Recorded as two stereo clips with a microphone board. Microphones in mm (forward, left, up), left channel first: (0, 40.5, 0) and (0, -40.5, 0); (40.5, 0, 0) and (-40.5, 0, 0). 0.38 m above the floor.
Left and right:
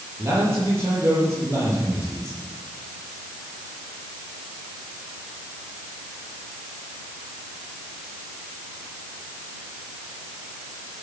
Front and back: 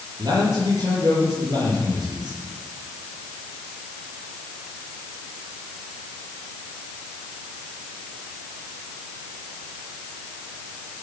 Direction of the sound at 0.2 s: 145° right.